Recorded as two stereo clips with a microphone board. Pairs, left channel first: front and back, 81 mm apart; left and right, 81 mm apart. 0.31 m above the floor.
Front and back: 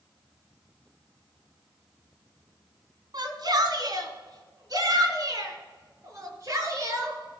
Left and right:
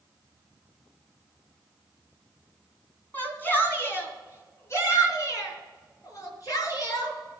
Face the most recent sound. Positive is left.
turn(degrees=125)